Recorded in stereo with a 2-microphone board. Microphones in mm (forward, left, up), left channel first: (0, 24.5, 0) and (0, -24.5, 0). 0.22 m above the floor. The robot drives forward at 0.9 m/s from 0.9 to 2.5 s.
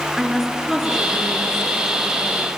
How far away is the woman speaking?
About 4 m.